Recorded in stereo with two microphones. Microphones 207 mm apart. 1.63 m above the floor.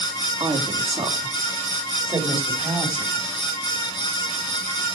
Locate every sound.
0.4 s a woman speaking: 20° right (ahead or behind), 3.5 m